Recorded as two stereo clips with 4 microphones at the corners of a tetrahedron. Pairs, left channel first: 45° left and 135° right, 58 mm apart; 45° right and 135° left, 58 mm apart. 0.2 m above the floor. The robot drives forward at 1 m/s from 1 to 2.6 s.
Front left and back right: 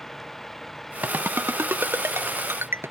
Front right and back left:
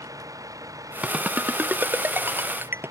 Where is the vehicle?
130° left; by 2.9 s 135° left.